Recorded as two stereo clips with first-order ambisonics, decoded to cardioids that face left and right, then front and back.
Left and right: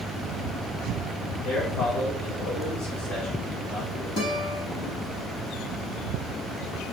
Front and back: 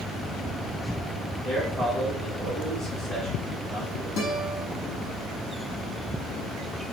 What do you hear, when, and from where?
1.4 s a man speaking: 70° left, 5.5 m
4.2 s a guitar: 35° left, 5 m